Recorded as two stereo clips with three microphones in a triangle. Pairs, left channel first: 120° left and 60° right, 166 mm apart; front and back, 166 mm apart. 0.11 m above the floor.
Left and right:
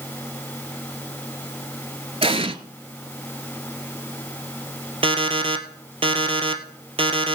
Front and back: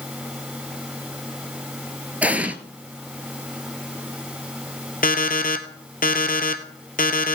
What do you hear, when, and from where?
2.2 s an explosion: 100° right, 0.9 m
5.0 s an alarm clock: 10° right, 1.1 m